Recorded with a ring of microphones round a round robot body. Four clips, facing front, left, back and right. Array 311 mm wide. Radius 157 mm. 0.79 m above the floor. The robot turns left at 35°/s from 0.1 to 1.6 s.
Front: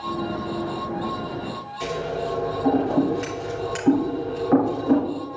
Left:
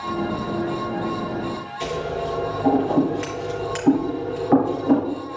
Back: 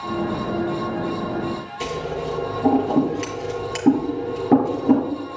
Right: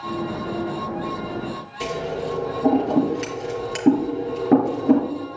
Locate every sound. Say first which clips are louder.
1.8 s scissors: even, front 1 dB; 135° right, 3 m